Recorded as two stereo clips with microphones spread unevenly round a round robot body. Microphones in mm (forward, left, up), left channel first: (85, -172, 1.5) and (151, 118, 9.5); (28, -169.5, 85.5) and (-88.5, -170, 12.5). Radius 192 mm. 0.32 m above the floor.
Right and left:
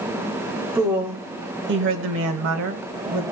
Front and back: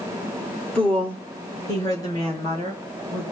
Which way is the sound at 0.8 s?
155° left.